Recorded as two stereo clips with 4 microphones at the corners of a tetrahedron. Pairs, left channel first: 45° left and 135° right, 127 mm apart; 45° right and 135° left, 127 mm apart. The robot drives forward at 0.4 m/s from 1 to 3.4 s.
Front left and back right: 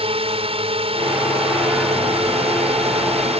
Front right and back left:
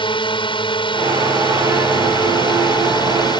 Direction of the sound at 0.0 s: 95° right.